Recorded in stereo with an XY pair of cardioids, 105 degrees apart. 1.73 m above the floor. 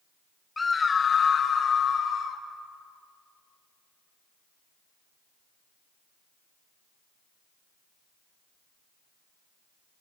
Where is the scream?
20° left, 1.1 m; by 2.4 s 60° left, 3.5 m.